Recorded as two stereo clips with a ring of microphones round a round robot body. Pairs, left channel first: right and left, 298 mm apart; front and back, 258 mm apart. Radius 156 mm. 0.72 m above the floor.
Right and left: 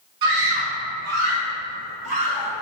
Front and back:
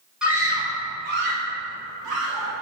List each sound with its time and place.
0.2 s a scream: 95° left, 2 m; by 2.5 s 165° left, 3.5 m